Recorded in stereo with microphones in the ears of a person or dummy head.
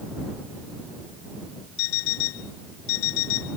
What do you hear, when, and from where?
1.8 s an alarm clock: 85° left